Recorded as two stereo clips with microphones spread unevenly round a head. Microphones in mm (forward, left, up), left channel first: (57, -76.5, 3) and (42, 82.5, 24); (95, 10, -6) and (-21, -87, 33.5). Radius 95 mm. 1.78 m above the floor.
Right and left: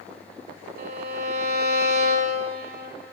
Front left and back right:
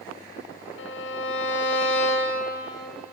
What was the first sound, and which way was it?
A violin, 75° left.